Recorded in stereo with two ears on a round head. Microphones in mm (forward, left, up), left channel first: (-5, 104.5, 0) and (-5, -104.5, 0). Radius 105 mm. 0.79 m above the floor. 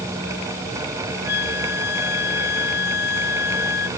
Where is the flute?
45° left (ahead or behind).